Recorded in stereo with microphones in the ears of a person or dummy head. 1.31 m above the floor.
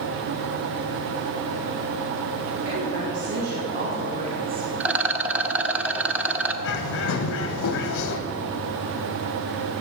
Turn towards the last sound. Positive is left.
turn(degrees=65)  # may be behind; listen again after turning